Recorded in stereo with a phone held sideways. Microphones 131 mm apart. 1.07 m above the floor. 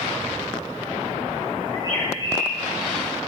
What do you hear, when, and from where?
1.7 s a bird: 30° left (ahead or behind), 8 m